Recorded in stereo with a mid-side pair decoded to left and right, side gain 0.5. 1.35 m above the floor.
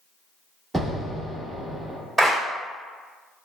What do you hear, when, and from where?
0.7 s an explosion: 10° right, 1.8 m
2.2 s a clap: 15° right, 1.9 m